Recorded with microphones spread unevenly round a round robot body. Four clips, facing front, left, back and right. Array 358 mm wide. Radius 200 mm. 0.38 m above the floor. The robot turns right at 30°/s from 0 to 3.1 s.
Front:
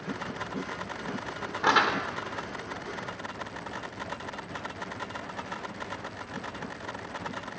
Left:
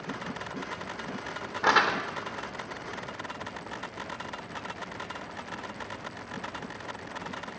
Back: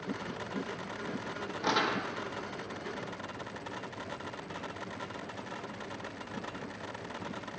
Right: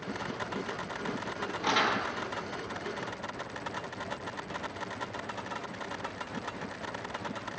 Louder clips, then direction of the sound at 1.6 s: Left 5 dB, front 6 dB; 40° left.